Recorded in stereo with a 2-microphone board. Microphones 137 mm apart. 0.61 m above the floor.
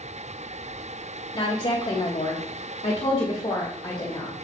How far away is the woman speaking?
About 2.0 m.